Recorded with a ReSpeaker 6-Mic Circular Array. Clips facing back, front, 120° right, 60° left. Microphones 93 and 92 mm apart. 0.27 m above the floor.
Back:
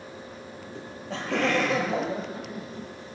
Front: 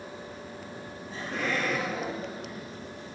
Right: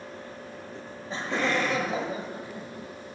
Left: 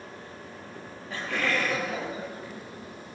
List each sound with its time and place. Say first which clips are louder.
0.8 s laughter: back 7 dB, right 1 dB; 175° left, 7.5 m